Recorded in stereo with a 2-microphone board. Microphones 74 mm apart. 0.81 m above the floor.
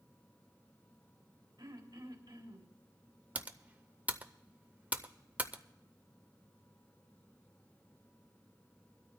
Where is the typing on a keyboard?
20° right (ahead or behind), 0.6 m.